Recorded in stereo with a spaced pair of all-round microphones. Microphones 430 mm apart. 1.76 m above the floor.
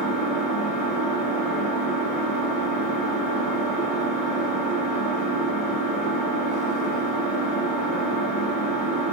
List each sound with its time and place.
0.0 s an engine running: 20° left (ahead or behind), 1.0 m